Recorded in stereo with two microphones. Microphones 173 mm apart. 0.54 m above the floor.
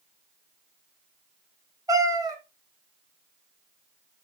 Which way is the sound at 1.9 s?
20° right (ahead or behind).